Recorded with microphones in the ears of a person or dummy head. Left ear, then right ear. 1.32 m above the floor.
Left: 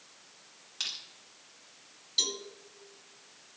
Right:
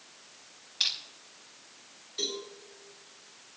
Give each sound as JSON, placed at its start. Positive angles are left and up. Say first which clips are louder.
{"t": 0.8, "sound": "crushing", "louder": "right 7 dB", "side_deg": 35, "distance_m": 4.0}
{"t": 2.2, "sound": "a cowbell", "louder": "left 4 dB", "side_deg": 50, "distance_m": 3.0}